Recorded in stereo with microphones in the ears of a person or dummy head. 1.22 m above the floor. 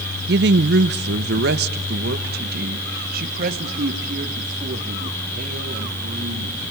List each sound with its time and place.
0.3 s a woman speaking: 50° right (ahead or behind), 0.6 m; by 6.6 s 55° right (ahead or behind), 4 m